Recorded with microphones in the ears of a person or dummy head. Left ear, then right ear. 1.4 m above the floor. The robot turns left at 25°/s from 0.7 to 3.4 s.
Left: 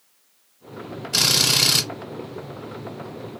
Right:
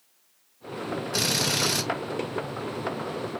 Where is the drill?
70° left (ahead or behind), 1.9 m; by 1.9 s 60° left (ahead or behind), 1.9 m.